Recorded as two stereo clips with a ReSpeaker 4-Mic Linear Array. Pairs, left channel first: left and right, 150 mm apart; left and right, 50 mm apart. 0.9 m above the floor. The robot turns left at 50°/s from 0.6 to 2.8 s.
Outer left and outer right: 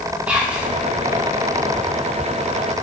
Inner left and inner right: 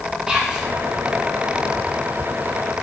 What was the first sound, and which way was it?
Whispering, 10° right (ahead or behind).